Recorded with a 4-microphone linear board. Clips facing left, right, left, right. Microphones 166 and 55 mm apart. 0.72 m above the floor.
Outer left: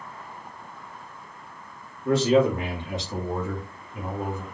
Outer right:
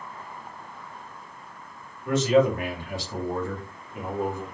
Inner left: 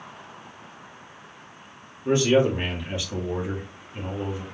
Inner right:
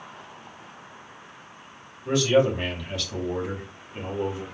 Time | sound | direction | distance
2.0 | a man speaking | 35° left (ahead or behind) | 1.6 m